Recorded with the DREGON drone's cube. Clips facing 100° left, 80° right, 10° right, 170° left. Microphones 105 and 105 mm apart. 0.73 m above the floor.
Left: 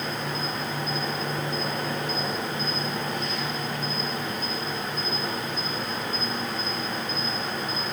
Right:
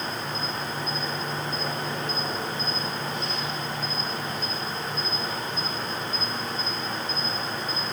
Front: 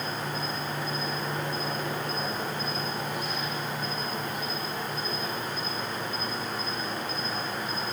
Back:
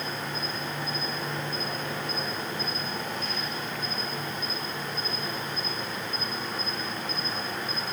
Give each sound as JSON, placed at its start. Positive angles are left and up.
{"t": 0.0, "sound": "an insect", "azimuth_deg": 70, "distance_m": 5.5}